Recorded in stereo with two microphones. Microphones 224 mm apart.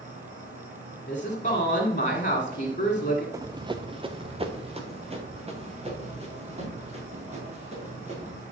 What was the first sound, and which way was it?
An insect, 35° right (ahead or behind).